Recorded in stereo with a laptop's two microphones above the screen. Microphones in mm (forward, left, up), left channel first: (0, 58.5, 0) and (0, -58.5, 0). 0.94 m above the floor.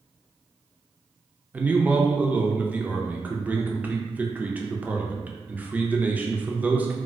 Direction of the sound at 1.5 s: 15° right (ahead or behind).